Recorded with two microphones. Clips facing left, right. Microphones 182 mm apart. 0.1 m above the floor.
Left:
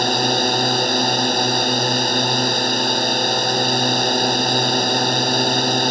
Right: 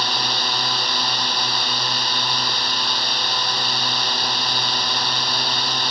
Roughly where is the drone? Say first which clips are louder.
Left 9 dB; left.